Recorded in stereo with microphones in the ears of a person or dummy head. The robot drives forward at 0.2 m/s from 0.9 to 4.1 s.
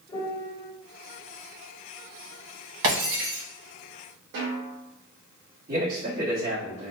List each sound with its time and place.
0.1 s a piano: 25° left (ahead or behind), 1.1 m
2.8 s breaking glass: 60° right (ahead or behind), 1.8 m
4.3 s a snare drum: 60° right (ahead or behind), 1.9 m
5.7 s a man speaking: 35° right (ahead or behind), 1.4 m